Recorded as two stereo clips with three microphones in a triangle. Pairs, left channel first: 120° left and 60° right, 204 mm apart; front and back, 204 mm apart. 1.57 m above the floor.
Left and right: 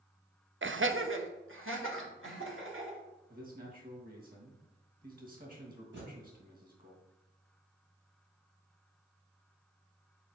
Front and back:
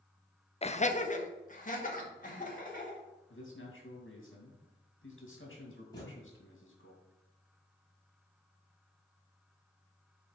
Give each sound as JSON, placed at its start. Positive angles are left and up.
{"t": 0.6, "sound": "laughter", "azimuth_deg": -60, "distance_m": 0.6}
{"t": 3.3, "sound": "a man speaking", "azimuth_deg": -15, "distance_m": 2.5}
{"t": 5.9, "sound": "a thud", "azimuth_deg": -70, "distance_m": 3.5}